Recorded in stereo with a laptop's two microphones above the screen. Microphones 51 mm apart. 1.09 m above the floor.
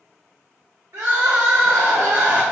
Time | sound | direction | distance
0.9 | crying | 70° right (ahead or behind) | 1.5 m